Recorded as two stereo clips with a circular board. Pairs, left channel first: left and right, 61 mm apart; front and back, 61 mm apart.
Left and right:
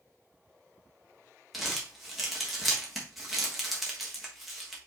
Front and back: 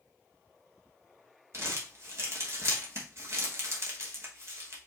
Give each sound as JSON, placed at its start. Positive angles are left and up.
{"t": 1.5, "sound": "crumpling", "azimuth_deg": -175, "distance_m": 1.2}